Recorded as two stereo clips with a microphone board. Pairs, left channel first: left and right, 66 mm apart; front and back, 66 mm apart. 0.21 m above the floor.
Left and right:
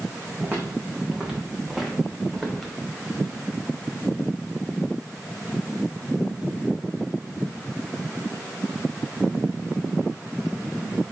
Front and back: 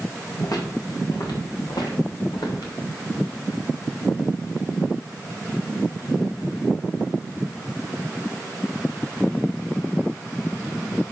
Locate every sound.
0.4 s footsteps: 25° right, 3.5 m; by 2.7 s straight ahead, 4 m